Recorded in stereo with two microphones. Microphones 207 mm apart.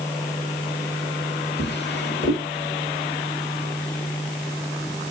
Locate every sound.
1.6 s a drawer: 55° left (ahead or behind), 1.2 m